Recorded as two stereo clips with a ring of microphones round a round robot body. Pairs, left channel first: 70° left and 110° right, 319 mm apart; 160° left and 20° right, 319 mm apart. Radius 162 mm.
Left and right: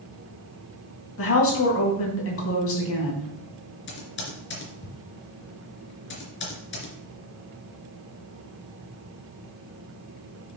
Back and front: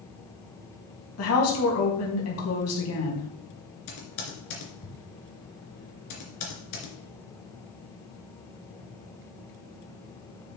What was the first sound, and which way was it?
A woman speaking, 115° left.